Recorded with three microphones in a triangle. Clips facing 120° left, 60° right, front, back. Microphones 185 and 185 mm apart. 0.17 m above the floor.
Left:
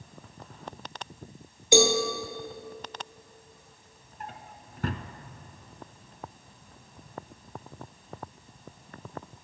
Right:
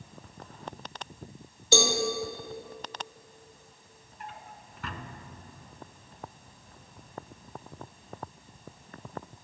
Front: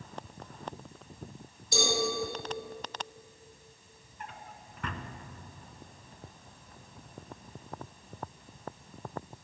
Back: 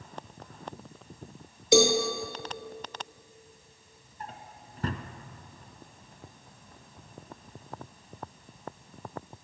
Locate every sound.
1.7 s a cowbell: 165° right, 1.7 m
4.2 s a drawer: 140° left, 0.8 m